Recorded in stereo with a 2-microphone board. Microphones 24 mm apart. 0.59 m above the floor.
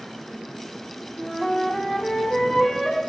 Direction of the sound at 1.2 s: 10° left (ahead or behind).